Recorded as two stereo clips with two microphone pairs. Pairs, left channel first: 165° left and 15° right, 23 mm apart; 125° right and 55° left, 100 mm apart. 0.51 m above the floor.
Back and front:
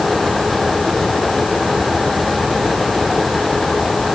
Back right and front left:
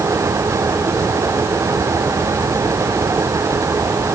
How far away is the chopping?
No chopping in this recording.